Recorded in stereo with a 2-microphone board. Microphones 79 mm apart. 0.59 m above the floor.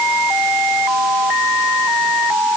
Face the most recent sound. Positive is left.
No sound to turn to.